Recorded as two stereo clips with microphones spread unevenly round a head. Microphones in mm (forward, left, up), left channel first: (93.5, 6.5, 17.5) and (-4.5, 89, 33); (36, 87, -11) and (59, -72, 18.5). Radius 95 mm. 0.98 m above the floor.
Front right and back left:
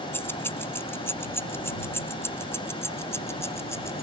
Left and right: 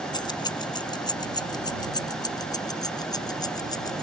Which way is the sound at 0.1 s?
35° left.